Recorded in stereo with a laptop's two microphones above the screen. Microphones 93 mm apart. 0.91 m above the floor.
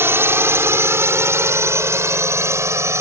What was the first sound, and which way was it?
A drone, 25° right (ahead or behind).